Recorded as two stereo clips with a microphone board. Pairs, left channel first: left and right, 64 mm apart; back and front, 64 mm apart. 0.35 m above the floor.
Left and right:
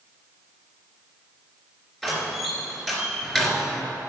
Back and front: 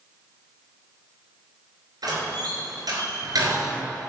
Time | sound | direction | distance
2.0 | a door slam | straight ahead | 3 m